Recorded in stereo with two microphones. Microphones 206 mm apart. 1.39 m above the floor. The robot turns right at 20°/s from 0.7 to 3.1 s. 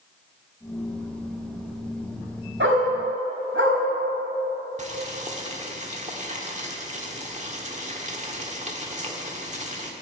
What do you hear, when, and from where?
2.6 s a dog barking: 75° right (ahead or behind), 4 m; by 3.8 s 80° right, 4 m
4.8 s boiling: 35° right (ahead or behind), 1.5 m